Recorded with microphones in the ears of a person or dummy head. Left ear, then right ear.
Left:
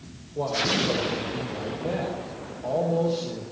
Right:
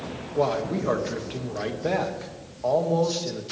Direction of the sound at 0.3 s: 65° right (ahead or behind).